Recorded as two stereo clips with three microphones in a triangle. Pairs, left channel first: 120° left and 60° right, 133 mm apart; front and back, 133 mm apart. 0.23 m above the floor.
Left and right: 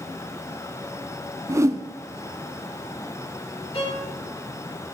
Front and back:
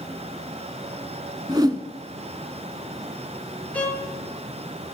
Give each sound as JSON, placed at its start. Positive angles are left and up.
{"t": 1.5, "sound": "a whoosh", "azimuth_deg": -125, "distance_m": 0.7}
{"t": 3.7, "sound": "a violin", "azimuth_deg": 80, "distance_m": 4.5}